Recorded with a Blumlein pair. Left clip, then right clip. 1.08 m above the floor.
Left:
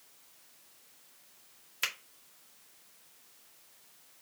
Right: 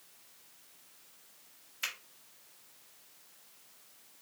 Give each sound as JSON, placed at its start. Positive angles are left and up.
{"t": 1.8, "sound": "a finger snap", "azimuth_deg": 25, "distance_m": 1.8}